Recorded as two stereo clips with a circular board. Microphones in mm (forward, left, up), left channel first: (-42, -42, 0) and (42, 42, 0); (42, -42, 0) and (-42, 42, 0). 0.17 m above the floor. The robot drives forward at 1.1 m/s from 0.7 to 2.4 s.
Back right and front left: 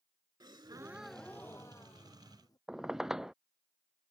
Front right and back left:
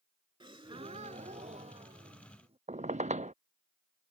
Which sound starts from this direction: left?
A gasp, at 0.4 s.